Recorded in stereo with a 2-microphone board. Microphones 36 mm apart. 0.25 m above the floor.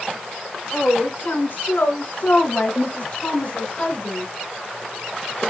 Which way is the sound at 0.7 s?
65° left (ahead or behind).